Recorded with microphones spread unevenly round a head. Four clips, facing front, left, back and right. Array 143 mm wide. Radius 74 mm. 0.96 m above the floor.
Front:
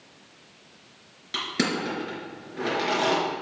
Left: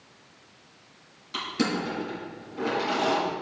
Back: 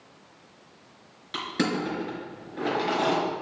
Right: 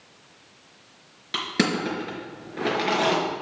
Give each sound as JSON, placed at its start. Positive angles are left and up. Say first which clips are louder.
{"t": 1.3, "sound": "crushing", "louder": "right 3 dB, even", "azimuth_deg": -70, "distance_m": 4.0}